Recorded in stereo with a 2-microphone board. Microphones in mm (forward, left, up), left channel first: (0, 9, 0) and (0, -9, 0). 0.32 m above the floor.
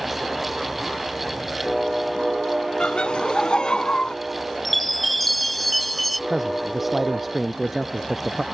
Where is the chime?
5° left (ahead or behind).